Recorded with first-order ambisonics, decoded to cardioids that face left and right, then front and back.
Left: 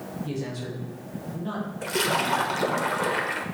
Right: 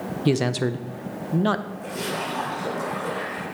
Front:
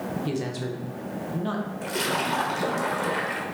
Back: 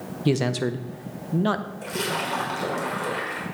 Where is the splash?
80° left, 1.4 m.